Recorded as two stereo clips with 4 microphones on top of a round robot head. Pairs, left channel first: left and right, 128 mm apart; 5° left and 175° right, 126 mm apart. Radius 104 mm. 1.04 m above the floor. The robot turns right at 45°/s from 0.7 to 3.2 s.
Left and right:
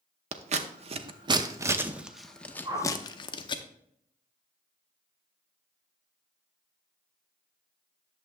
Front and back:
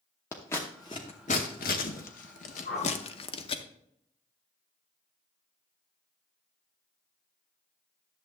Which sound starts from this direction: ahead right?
A whoosh, at 2.6 s.